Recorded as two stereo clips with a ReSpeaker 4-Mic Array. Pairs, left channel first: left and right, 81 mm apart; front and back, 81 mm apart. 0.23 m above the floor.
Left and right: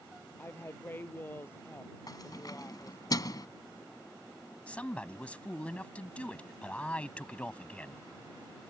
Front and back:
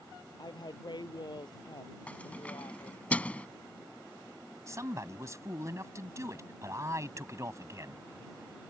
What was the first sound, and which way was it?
A woman speaking, 30° left.